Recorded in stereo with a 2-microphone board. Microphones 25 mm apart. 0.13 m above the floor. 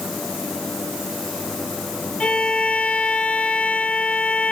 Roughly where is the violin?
Left.